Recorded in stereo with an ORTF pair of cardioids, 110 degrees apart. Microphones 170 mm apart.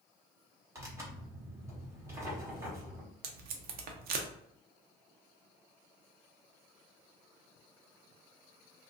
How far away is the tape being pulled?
About 0.5 m.